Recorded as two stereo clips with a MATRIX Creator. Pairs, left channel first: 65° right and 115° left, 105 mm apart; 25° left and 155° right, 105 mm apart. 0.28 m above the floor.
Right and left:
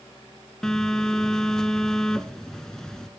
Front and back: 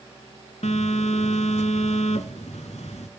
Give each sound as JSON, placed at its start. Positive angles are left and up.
{"t": 0.6, "sound": "a phone buzzing", "azimuth_deg": 15, "distance_m": 0.7}